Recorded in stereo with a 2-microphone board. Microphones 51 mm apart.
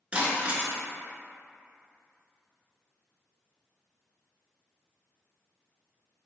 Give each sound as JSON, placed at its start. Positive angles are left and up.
{"t": 0.1, "sound": "breaking glass", "side_deg": -25, "distance_m": 0.7}